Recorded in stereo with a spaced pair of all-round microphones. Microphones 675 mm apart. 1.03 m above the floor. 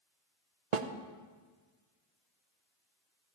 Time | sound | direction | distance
0.7 | a snare drum | 65° right (ahead or behind) | 0.8 m